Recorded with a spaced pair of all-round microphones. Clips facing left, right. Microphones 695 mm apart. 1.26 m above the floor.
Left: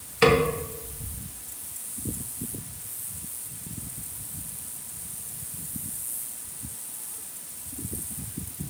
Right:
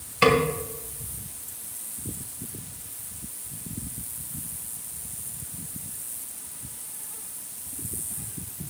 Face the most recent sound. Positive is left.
turn(degrees=-5)  # may be behind; listen again after turning